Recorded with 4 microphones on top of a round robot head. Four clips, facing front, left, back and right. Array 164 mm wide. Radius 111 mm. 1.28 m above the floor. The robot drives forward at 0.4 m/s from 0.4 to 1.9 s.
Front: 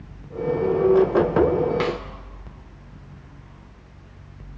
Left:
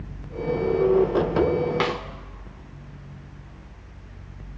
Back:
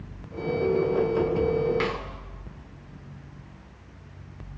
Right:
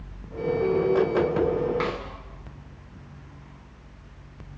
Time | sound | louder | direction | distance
1.8 | a snare drum | left 3 dB, front 4 dB | 80° left | 2.5 m